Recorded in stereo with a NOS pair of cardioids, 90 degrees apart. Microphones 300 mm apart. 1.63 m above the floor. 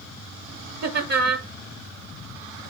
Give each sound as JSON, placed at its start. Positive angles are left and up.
{"t": 0.8, "sound": "laughter", "azimuth_deg": -60, "distance_m": 1.0}